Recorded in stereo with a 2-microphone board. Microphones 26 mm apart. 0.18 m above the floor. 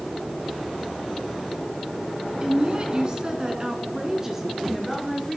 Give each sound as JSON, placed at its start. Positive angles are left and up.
{"t": 2.4, "sound": "a woman speaking", "side_deg": -40, "distance_m": 1.7}